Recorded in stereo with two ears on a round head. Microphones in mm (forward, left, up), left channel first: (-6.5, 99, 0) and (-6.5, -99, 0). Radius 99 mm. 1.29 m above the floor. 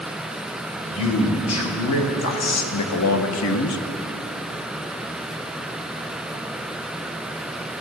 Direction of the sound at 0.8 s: 70° left (ahead or behind).